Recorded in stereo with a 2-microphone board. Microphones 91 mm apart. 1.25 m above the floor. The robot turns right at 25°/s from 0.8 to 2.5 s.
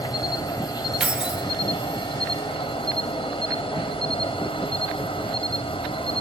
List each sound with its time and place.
0.0 s an insect: 45° left, 1.6 m; by 6.2 s 90° left, 1.6 m
1.0 s keys jangling: 15° right (ahead or behind), 0.6 m; by 1.4 s 5° right (ahead or behind), 0.6 m